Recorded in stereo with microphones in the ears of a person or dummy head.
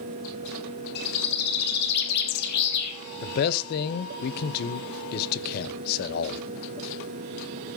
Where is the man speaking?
60° left (ahead or behind), 1.0 m.